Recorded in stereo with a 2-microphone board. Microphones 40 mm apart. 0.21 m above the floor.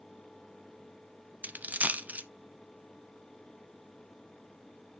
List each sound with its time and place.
1.4 s a dropped coin: 40° right (ahead or behind), 0.6 m